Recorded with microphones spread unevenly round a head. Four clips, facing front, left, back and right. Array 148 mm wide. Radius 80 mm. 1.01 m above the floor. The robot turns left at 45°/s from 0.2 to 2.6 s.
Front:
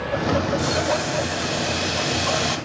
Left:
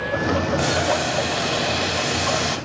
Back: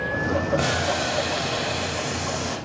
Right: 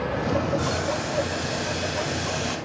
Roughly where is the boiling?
Behind left.